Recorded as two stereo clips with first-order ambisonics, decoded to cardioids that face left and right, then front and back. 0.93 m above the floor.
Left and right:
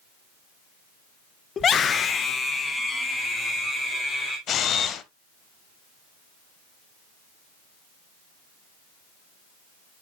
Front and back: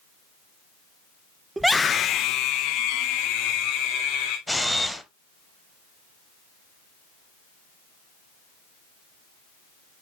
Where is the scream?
115° left, 0.5 m; by 4.4 s 10° left, 2.5 m.